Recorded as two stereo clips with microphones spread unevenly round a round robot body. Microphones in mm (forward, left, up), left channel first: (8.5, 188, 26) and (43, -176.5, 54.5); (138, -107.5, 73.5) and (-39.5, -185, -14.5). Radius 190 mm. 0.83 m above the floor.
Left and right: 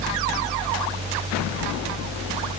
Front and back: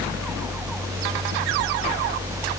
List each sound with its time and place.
Only background noise.